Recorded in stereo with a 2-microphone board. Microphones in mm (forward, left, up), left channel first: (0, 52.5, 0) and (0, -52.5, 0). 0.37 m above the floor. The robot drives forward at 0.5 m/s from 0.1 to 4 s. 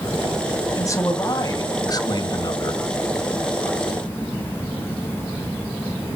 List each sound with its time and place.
0.8 s a man speaking: 30° left (ahead or behind), 2.5 m; by 2.8 s 45° left (ahead or behind), 1.8 m